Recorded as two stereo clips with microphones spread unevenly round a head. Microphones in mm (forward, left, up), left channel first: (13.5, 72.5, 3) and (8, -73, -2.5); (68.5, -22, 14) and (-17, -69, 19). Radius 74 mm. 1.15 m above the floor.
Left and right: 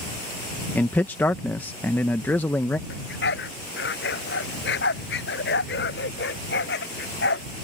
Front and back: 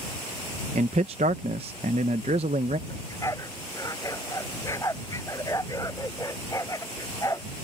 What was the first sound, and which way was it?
A man speaking, 165° left.